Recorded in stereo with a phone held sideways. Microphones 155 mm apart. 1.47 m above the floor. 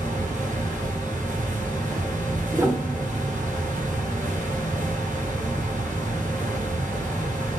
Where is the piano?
20° right (ahead or behind), 0.9 m.